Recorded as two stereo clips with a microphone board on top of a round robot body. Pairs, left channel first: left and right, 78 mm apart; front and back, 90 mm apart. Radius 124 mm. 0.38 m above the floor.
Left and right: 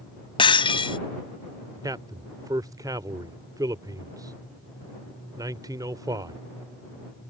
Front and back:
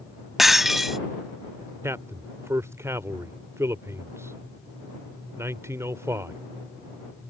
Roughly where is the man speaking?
Behind right.